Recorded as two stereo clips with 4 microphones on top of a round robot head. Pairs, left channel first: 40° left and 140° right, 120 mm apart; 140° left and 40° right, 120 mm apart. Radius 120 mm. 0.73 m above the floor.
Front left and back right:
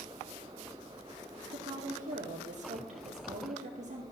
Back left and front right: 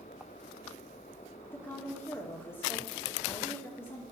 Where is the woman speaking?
155° right, 2 m.